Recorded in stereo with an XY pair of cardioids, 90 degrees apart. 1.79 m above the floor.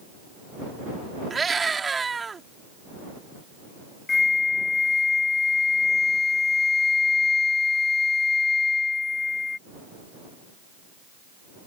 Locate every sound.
1.3 s a scream: 35° right
4.1 s a flute: 35° left